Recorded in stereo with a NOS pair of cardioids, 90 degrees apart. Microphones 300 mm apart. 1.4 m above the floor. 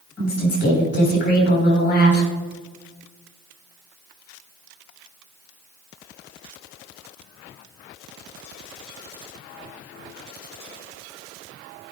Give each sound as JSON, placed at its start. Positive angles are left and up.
{"t": 0.2, "sound": "a woman speaking", "azimuth_deg": 35, "distance_m": 4.5}